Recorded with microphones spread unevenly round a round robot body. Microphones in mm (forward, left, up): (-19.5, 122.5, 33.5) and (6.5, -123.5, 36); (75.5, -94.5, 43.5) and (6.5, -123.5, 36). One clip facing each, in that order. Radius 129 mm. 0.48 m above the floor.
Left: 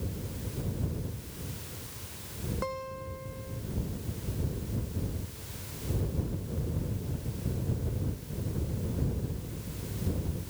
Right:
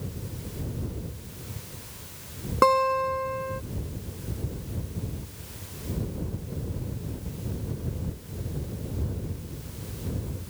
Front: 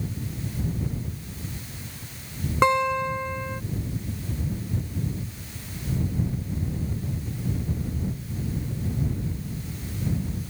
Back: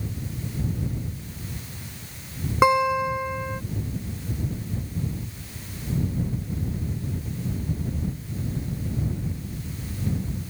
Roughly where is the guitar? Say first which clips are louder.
Right 14 dB, back 2 dB; right.